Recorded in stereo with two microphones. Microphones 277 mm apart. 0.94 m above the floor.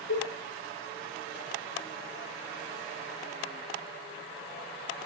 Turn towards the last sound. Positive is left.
turn(degrees=85)